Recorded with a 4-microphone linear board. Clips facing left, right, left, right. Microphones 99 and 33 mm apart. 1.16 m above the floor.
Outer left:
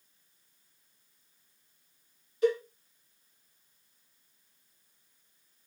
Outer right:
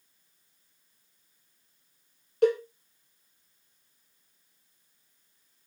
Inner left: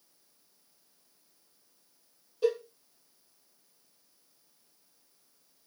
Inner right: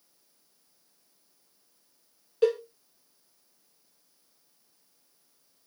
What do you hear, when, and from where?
2.4 s a cowbell: 65° right (ahead or behind), 0.7 m